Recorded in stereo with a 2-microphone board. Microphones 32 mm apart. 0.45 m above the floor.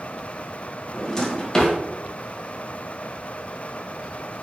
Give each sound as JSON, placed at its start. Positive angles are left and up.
{"t": 0.9, "sound": "a drawer", "side_deg": 15, "distance_m": 0.9}